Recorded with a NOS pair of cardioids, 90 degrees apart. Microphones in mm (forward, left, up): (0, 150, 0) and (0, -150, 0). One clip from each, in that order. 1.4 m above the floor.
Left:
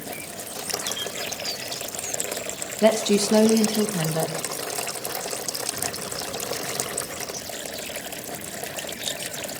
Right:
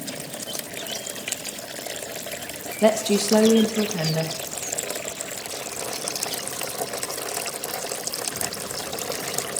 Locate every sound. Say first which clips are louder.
2.8 s a woman speaking: even; 5° left, 1.2 m